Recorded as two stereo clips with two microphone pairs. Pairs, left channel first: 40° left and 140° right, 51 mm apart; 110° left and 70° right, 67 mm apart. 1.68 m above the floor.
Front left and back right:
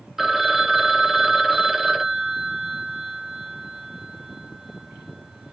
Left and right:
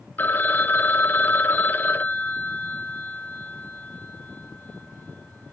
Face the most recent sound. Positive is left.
turn(degrees=145)